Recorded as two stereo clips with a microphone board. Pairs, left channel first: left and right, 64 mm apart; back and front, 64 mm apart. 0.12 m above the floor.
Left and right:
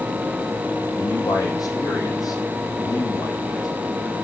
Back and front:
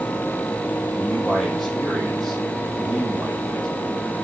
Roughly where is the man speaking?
Left.